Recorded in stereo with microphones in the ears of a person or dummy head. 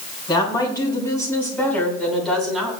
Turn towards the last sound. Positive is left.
turn(degrees=0)  # may be behind; listen again after turning